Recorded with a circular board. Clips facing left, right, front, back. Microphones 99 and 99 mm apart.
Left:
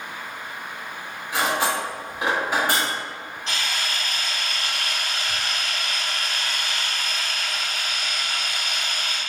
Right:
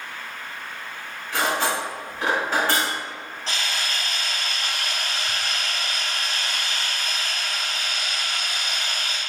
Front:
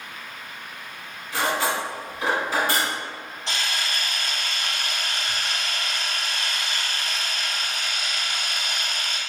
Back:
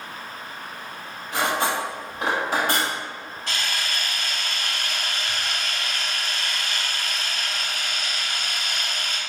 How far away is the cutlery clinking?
About 1.5 m.